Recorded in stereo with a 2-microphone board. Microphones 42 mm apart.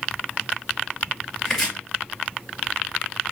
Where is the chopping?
10° left (ahead or behind), 2.5 m.